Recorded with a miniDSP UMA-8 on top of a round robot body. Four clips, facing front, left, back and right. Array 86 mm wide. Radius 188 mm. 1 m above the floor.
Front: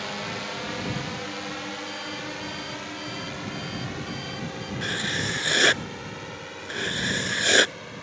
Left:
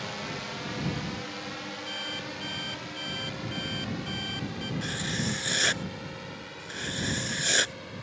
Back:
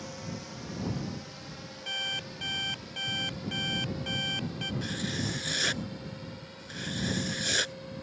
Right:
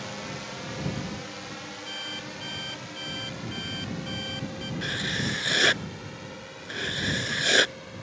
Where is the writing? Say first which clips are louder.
Right 4 dB, front 7 dB; 20° right.